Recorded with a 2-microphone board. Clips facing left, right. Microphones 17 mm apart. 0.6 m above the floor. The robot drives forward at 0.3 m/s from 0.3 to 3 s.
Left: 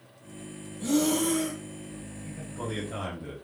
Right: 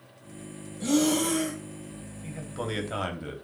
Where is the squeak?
No squeak in this recording.